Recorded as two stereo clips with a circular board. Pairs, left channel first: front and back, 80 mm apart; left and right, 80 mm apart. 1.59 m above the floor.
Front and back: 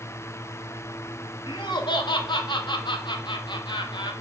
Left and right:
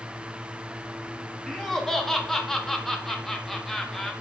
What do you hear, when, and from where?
1.5 s laughter: 5° left, 1.0 m